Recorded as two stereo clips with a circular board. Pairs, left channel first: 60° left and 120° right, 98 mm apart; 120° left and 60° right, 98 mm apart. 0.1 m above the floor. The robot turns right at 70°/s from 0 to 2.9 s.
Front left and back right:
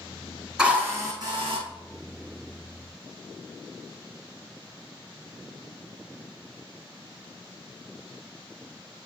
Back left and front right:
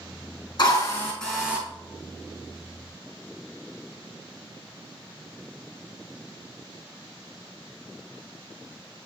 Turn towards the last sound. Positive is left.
turn(degrees=-45)